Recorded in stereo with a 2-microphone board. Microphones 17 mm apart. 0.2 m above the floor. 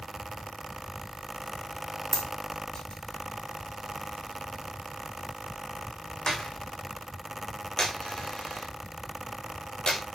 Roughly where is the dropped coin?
Left.